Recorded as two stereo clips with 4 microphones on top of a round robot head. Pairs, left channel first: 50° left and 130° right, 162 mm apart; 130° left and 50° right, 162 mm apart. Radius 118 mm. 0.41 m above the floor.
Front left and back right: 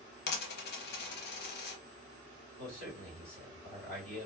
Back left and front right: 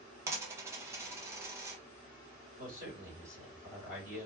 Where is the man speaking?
75° left, 3 m.